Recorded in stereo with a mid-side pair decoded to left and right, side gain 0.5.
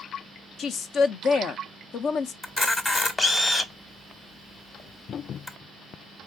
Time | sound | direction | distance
0.6 | a woman speaking | 60° left | 0.7 m
2.4 | a camera shutter | 25° left | 1.1 m